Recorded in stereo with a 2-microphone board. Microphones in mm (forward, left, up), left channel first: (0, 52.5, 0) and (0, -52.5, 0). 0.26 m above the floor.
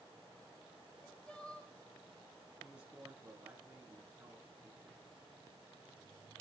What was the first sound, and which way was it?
Crying, 10° left (ahead or behind).